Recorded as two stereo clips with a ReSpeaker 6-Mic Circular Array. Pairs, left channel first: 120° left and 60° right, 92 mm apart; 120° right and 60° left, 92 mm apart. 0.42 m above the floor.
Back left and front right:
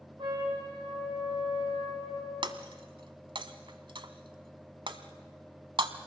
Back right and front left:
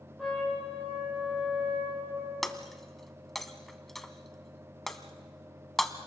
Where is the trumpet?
30° right, 6 m.